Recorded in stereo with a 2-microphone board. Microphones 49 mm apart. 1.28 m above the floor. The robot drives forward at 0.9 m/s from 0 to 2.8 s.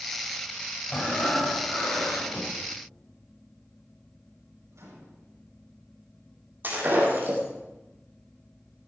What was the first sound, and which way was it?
Breathing, 25° left (ahead or behind).